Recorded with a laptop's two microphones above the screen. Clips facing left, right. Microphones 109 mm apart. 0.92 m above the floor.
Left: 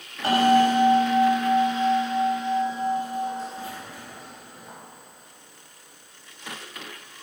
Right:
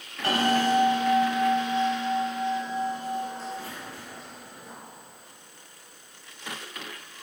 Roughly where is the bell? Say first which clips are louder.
Left 6 dB; centre.